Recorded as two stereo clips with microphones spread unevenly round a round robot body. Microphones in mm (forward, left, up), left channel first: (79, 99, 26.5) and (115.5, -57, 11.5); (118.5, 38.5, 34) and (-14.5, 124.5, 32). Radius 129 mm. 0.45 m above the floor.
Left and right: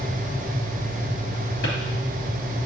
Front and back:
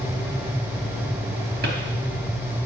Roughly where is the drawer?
Behind left.